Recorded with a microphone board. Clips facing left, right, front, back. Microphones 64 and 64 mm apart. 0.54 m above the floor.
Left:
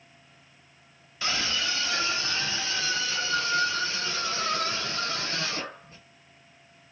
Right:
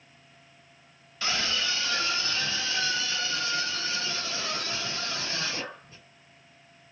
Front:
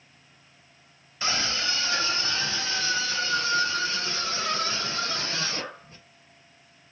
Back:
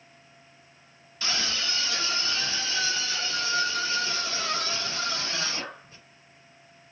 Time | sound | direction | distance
1.2 | a scream | 25° left | 1.1 m